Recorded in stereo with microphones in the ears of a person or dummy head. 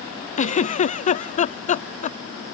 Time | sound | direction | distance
0.4 | a giggle | 30° left (ahead or behind) | ?